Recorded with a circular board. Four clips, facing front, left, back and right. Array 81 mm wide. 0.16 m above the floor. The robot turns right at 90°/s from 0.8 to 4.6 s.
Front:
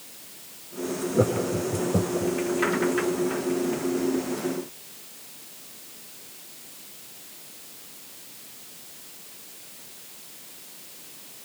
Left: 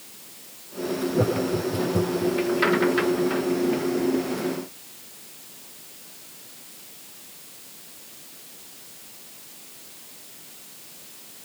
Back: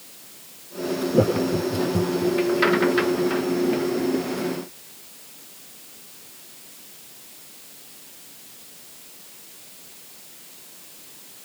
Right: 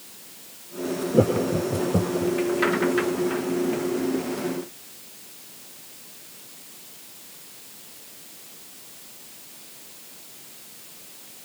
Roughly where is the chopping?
I don't hear chopping.